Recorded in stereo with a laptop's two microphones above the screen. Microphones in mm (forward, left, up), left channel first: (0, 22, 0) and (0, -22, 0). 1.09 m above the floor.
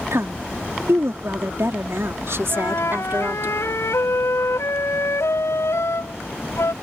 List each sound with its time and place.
0.1 s a woman speaking: 75° right (ahead or behind); by 3.5 s 55° right (ahead or behind)
2.5 s a flute: 85° left